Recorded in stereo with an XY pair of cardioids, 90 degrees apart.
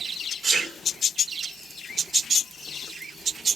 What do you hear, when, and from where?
0.4 s a sneeze: 60° right, 4.5 m